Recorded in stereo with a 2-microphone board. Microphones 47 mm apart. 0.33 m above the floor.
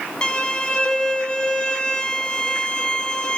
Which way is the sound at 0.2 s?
20° left (ahead or behind).